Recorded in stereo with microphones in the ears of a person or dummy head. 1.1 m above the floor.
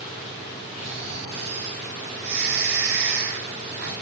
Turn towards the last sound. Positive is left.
turn(degrees=-65)  # may be behind; listen again after turning